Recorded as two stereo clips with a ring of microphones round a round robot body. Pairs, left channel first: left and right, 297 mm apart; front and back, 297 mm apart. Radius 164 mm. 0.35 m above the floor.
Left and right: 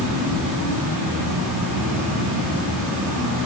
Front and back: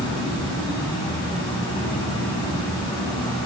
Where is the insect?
70° right, 4 m.